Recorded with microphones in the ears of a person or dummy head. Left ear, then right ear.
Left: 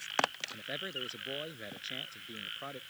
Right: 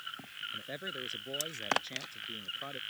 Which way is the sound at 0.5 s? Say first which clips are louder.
Left 1 dB; 5° left (ahead or behind).